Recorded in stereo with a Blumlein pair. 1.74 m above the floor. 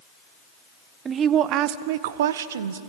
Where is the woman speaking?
20° right, 1.0 m; by 2.8 s 65° right, 1.3 m.